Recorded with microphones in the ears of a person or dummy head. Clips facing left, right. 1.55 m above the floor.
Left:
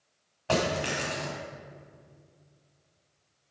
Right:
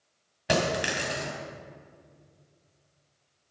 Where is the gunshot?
I don't hear a gunshot.